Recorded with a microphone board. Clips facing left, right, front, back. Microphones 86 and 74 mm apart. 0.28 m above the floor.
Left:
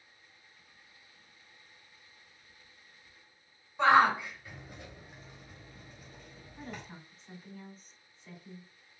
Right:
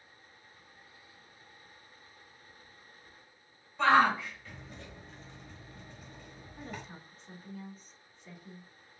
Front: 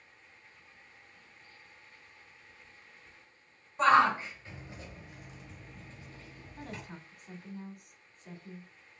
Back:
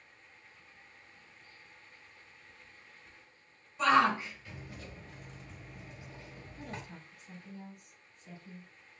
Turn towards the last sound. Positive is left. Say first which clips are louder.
# even, front 1 dB
turn(degrees=0)